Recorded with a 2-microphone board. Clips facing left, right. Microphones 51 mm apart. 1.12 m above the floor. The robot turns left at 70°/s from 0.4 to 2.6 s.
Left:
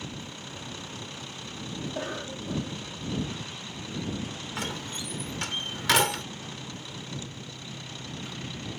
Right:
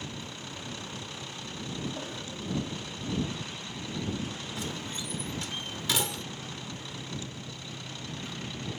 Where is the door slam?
70° left (ahead or behind).